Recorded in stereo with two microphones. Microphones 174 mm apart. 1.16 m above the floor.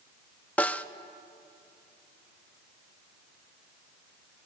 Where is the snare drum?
10° left (ahead or behind), 0.7 m.